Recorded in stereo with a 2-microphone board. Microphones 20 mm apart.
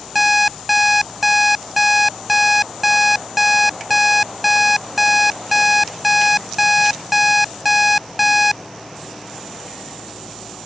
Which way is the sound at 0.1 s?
10° right (ahead or behind).